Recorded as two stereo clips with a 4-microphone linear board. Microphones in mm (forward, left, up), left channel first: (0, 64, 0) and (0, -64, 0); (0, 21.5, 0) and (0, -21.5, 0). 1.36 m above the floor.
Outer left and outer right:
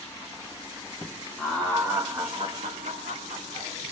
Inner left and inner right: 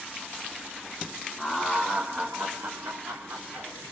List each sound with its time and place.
1.4 s laughter: centre (ahead or behind), 1.3 m; by 3.7 s 75° right (ahead or behind), 1.5 m